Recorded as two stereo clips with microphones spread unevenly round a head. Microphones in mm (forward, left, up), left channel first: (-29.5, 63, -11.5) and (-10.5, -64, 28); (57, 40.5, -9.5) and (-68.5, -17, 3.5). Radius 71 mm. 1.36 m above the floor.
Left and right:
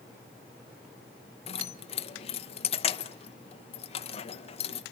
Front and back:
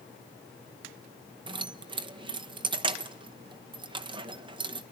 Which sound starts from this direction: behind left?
Keys jangling, at 1.5 s.